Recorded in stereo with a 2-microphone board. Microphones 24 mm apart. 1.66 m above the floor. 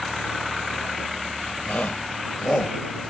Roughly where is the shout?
Left.